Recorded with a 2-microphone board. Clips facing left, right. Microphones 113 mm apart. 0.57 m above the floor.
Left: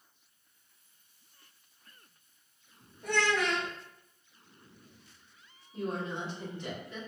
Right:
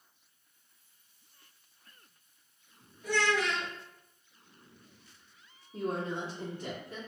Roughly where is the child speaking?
Left.